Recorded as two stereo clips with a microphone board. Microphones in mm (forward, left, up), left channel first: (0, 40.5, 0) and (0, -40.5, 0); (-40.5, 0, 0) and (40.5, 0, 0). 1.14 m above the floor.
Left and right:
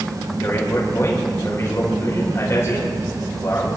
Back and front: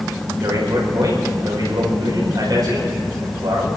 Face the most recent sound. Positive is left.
turn(degrees=35)